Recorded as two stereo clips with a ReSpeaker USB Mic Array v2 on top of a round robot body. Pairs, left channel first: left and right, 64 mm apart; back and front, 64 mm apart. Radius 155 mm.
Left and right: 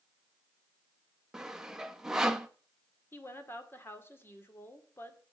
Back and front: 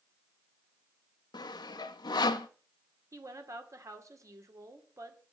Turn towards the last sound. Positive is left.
turn(degrees=35)